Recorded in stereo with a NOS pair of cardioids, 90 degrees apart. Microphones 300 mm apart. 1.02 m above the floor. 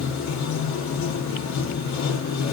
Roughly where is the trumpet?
I don't hear a trumpet.